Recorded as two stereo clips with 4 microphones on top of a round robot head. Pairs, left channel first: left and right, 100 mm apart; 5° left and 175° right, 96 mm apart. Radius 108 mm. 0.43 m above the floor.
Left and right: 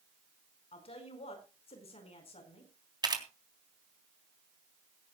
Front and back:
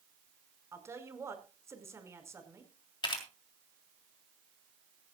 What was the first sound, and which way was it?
A woman speaking, 120° left.